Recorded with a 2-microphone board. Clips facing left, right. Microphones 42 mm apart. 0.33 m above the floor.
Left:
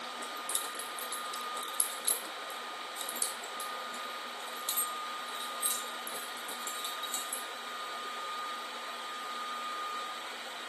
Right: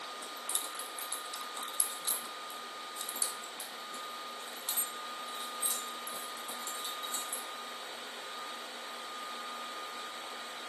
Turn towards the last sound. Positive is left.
turn(degrees=50)  # may be behind; listen again after turning